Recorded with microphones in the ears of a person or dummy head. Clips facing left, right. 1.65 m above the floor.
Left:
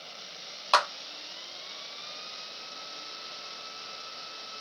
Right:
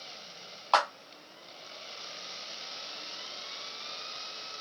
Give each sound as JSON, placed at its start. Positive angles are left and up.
{"t": 0.7, "sound": "a clap", "side_deg": 30, "distance_m": 0.9}